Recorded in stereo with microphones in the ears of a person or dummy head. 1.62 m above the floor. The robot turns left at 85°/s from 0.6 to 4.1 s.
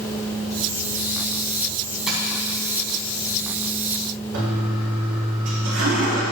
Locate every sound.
2.1 s tapping: 5° right (ahead or behind), 4.5 m; by 2.2 s 15° right (ahead or behind), 4.5 m
4.3 s a toilet flushing: 80° right, 3.5 m